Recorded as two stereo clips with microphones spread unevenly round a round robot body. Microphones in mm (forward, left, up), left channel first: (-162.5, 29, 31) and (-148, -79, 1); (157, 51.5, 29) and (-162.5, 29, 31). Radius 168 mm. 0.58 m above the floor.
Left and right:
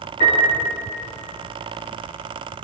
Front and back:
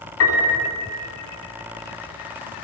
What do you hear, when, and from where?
0.2 s a piano: 50° left, 4 m